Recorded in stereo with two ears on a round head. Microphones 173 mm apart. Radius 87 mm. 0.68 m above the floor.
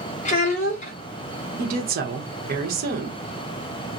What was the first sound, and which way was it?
A child speaking, 40° left (ahead or behind).